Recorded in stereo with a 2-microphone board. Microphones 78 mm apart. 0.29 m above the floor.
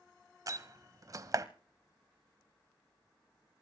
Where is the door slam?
45° right (ahead or behind), 1.0 m.